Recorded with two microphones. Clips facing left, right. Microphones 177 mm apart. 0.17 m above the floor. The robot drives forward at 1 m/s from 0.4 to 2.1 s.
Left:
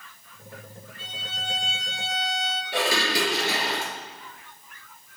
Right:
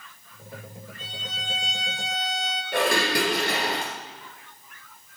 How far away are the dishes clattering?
About 1.8 m.